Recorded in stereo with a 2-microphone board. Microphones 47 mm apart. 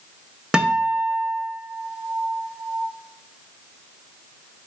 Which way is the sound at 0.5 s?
20° right (ahead or behind).